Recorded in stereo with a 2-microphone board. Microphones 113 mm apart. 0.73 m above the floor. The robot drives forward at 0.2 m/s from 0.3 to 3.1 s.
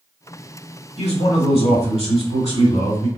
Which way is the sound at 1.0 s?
65° left (ahead or behind).